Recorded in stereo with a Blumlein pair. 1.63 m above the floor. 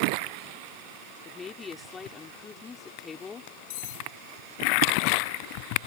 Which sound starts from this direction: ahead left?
Cutlery clinking, at 3.7 s.